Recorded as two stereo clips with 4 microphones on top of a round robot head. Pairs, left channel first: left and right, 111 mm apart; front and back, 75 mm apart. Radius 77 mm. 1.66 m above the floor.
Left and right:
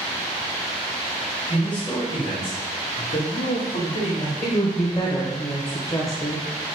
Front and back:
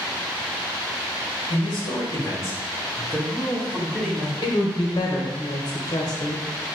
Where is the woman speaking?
25° left, 1.1 m.